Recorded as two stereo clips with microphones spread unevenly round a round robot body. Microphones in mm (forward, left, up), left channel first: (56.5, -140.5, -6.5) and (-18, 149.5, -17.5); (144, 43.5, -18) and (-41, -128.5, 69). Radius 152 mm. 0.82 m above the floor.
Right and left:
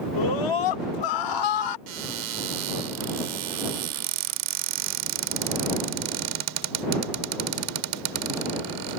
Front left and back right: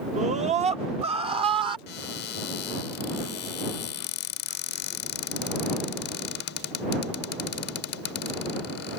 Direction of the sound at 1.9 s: 90° left.